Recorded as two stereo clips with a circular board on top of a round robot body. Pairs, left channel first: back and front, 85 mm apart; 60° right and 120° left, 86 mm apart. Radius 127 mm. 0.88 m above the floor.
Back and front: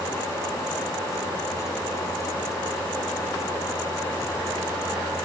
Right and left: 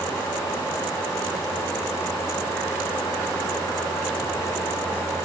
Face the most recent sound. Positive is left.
No sound to turn to.